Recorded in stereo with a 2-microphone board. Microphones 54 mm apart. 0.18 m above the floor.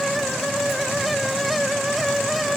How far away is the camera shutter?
I don't hear a camera shutter.